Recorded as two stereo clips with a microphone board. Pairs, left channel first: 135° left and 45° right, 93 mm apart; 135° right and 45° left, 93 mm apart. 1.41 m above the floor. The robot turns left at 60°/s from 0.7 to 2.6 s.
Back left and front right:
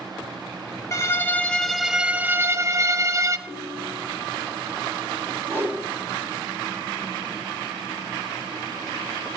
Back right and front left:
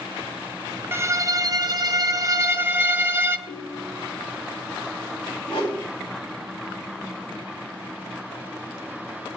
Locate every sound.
0.9 s a violin: 95° left, 0.6 m; by 3.4 s 5° right, 0.6 m
3.5 s a ringtone: 155° right, 2 m
5.5 s a whoosh: 160° right, 3.5 m